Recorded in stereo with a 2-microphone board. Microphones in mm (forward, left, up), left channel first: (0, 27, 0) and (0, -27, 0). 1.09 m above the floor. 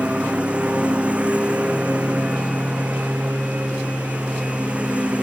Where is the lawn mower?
20° right (ahead or behind).